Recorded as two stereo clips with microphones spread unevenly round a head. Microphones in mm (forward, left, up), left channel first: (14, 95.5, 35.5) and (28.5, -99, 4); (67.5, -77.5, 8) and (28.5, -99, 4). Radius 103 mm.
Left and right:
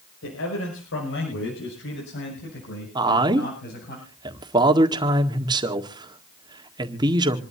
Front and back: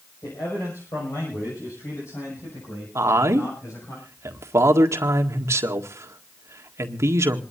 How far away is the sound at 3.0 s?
About 1.7 m.